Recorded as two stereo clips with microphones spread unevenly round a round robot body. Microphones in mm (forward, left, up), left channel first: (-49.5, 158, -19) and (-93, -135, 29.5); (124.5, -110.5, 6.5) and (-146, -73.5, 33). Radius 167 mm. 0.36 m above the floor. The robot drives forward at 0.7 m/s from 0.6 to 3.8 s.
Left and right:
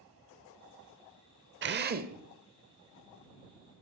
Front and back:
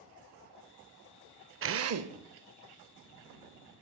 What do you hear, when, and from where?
1.6 s a drill: 150° right, 0.7 m; by 3.8 s 175° right, 2 m